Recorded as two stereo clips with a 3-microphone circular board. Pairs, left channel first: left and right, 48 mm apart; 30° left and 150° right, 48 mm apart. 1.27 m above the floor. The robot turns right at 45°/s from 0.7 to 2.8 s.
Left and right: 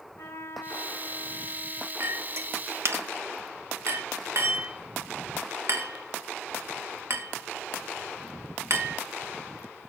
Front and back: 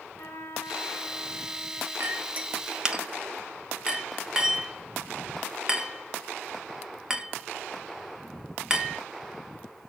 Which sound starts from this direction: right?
A clink, at 2.0 s.